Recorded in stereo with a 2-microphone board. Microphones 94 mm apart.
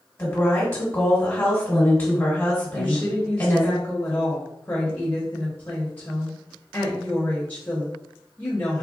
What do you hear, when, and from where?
0.2 s a woman speaking: 25° left (ahead or behind), 1.5 m
2.7 s a woman speaking: 20° left (ahead or behind), 0.9 m